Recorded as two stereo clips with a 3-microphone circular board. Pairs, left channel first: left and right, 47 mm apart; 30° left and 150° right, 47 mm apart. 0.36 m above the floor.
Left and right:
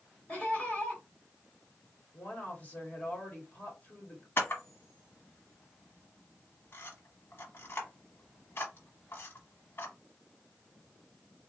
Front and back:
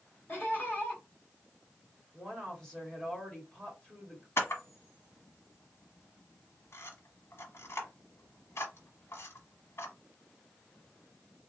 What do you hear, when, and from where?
0.3 s laughter: 45° left, 2.0 m
2.1 s a woman speaking: 90° left, 1.6 m
4.4 s a camera shutter: 55° left, 1.0 m